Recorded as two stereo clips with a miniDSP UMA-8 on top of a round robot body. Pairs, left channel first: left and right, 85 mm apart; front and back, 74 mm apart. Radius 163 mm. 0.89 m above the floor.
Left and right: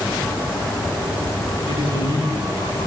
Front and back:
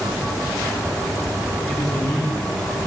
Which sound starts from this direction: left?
A man speaking, at 1.6 s.